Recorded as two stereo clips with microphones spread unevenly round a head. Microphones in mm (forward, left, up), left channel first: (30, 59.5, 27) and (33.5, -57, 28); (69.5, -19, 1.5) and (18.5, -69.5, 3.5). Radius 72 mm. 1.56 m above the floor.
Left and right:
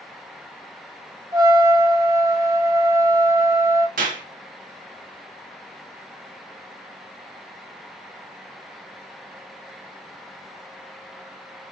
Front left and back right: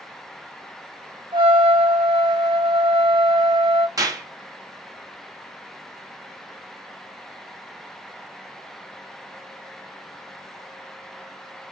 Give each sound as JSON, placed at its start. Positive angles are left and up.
{"t": 1.3, "sound": "a trumpet", "azimuth_deg": -155, "distance_m": 1.1}
{"t": 4.0, "sound": "a clap", "azimuth_deg": -100, "distance_m": 2.0}